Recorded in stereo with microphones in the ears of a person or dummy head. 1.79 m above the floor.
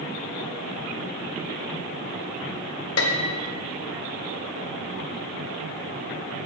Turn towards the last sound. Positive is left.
turn(degrees=85)